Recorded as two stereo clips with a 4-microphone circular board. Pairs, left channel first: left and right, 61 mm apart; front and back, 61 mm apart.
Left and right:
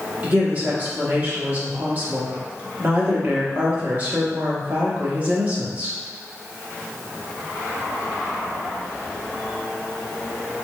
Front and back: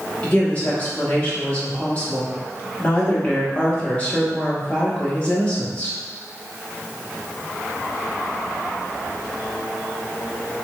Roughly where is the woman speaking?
Ahead right.